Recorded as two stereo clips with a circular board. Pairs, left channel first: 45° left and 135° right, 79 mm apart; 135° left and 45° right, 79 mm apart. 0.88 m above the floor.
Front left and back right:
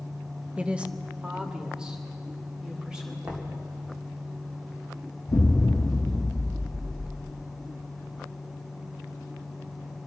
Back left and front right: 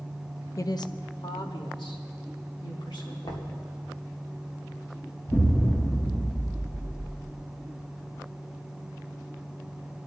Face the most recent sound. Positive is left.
turn(degrees=70)